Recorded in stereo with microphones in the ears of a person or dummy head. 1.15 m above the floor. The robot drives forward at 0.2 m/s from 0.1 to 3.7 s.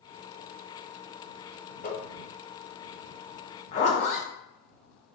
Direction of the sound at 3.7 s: 40° left (ahead or behind).